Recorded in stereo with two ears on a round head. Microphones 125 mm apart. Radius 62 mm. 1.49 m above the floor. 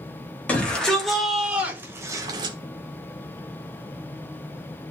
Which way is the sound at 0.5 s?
10° left (ahead or behind).